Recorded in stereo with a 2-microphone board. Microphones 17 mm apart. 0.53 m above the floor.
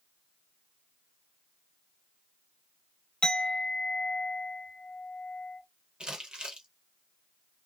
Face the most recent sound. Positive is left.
turn(degrees=-65)  # may be behind; listen again after turning